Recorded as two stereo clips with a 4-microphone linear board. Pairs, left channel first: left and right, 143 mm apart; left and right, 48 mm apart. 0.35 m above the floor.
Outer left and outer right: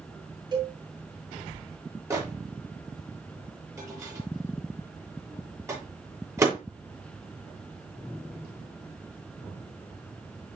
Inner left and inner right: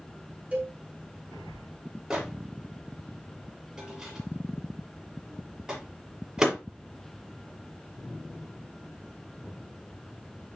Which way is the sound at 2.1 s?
20° right (ahead or behind).